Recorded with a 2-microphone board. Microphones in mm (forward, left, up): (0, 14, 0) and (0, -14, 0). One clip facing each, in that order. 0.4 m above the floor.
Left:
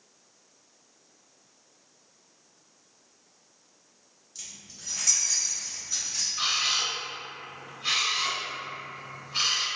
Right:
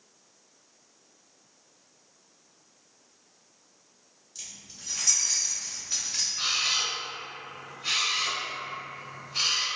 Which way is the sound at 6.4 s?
20° left (ahead or behind).